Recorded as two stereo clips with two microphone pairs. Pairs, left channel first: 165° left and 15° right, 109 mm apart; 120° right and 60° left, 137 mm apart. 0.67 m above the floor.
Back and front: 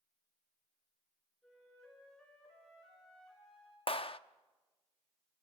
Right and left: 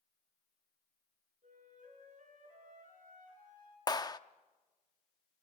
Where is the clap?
Straight behind, 0.6 m.